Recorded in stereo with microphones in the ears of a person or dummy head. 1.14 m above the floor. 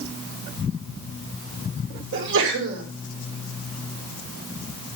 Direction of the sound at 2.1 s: 70° right (ahead or behind).